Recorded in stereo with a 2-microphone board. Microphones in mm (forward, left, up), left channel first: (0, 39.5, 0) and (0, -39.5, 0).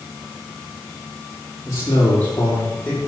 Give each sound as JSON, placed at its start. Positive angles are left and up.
{"t": 1.6, "sound": "a man speaking", "side_deg": 35, "distance_m": 6.5}